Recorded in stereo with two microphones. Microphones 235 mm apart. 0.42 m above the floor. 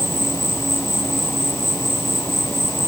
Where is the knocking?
No knocking in this recording.